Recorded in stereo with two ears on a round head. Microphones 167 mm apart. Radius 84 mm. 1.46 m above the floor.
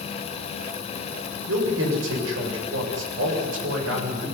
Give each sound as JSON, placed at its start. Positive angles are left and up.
{"t": 1.5, "sound": "a man speaking", "side_deg": -75, "distance_m": 8.0}